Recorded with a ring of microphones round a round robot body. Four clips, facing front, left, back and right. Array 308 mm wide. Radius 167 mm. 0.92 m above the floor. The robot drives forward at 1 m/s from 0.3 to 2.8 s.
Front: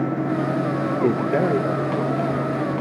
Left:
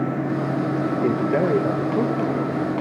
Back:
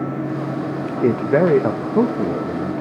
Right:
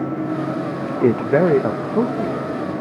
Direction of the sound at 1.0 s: 105° right.